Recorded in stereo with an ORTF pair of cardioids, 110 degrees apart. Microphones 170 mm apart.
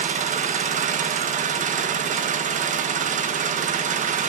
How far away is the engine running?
About 1.9 m.